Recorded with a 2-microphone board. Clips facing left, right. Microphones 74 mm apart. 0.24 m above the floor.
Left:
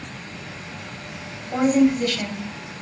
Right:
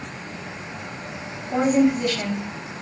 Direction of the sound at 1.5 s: 5° right (ahead or behind).